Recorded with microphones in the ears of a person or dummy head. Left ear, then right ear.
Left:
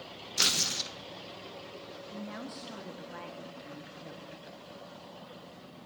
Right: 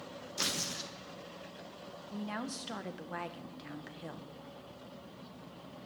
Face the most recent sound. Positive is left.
turn(degrees=-25)  # may be behind; listen again after turning